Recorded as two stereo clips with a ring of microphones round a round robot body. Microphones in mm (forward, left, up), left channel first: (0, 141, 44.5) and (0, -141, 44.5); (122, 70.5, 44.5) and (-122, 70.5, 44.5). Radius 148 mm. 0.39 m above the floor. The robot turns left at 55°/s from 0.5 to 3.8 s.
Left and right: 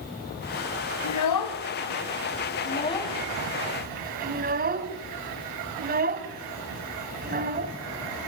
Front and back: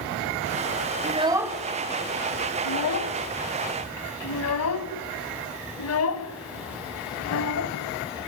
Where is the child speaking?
120° left, 1.9 m; by 7.7 s 30° right, 1.9 m.